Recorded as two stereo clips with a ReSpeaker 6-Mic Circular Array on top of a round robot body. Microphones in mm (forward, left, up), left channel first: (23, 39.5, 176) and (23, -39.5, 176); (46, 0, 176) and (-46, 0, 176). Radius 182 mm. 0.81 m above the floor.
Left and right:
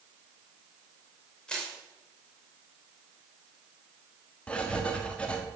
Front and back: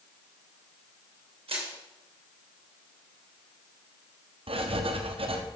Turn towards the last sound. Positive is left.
turn(degrees=165)